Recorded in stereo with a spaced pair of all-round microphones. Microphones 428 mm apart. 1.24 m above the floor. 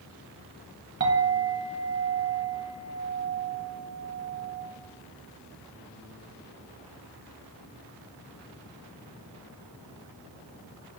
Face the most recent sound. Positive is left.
turn(degrees=-30)  # may be behind; listen again after turning